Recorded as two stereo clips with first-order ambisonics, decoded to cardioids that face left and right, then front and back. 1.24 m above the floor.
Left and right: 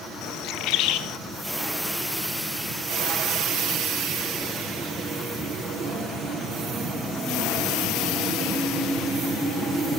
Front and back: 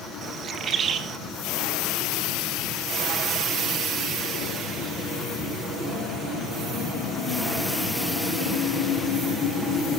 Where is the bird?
120° left, 1.4 m.